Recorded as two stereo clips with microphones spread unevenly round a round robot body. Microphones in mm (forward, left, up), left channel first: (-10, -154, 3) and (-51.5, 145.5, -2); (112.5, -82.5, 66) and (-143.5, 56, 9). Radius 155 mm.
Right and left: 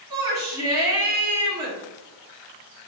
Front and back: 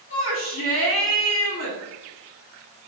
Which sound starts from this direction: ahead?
A shout, at 0.1 s.